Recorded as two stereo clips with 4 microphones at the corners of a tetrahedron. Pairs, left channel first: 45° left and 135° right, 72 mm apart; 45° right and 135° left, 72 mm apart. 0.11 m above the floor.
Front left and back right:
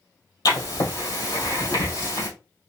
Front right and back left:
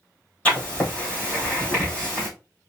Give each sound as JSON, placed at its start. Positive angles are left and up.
{"t": 0.5, "sound": "writing", "azimuth_deg": 30, "distance_m": 3.5}